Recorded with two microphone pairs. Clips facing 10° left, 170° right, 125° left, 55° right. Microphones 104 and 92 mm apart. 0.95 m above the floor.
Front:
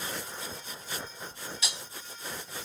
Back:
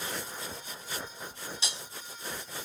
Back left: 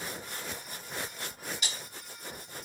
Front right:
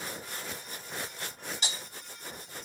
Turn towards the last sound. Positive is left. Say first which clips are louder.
# front 2 dB, front right 2 dB
turn(degrees=-110)